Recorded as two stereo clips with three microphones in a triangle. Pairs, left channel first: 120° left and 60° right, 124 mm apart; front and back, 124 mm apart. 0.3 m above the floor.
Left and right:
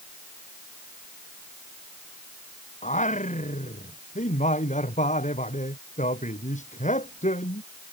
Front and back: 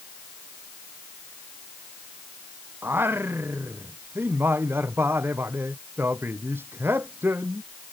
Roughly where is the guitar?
No guitar in this recording.